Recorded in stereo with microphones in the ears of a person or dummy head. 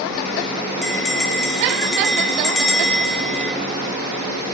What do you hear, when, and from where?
0.8 s a bell: centre (ahead or behind), 0.8 m